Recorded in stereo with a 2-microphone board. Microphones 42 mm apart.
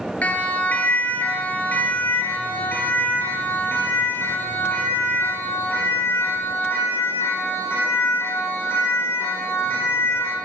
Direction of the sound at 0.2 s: 35° left (ahead or behind).